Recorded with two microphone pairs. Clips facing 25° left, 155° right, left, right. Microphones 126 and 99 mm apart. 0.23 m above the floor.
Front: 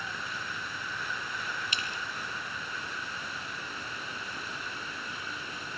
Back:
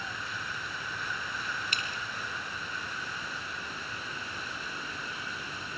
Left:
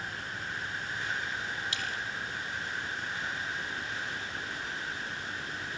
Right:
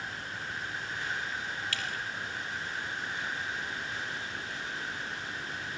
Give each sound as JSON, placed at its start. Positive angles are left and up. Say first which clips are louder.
{"t": 1.7, "sound": "dripping", "louder": "even, even", "azimuth_deg": 165, "distance_m": 3.5}